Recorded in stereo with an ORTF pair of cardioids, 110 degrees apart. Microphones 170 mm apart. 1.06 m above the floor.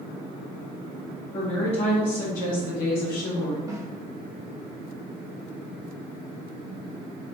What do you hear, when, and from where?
1.3 s a woman speaking: 30° left, 1.4 m; by 3.6 s 75° left, 1.7 m
3.7 s a snare drum: 20° right, 0.8 m